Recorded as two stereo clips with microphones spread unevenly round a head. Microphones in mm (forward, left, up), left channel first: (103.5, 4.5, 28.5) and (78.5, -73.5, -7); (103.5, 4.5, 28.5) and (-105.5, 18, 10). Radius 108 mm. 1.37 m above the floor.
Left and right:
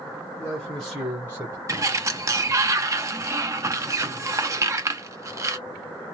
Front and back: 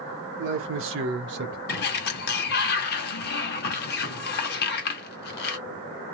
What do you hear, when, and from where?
0.4 s a man speaking: 155° left, 1.3 m; by 1.6 s 150° right, 0.9 m
1.7 s a sliding door: 50° right, 0.8 m